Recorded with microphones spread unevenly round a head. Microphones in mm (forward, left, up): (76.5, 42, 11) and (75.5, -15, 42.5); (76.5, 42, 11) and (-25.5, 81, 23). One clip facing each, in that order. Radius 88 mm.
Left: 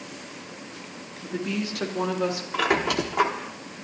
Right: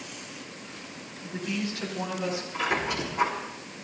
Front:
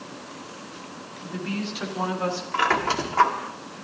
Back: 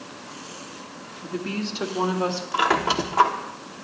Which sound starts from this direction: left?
A woman speaking, at 1.2 s.